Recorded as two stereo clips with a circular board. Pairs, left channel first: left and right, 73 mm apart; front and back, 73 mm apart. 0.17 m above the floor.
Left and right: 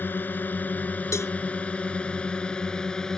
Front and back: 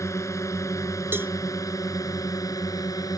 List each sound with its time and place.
0.0 s a drone: 35° left; by 3.2 s 10° left
1.1 s a cowbell: 125° left